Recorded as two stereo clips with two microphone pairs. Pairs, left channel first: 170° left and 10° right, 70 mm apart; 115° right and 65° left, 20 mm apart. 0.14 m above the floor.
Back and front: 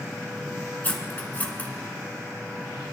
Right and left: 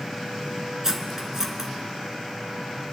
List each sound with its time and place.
0.8 s cutlery clinking: 115° left, 1.1 m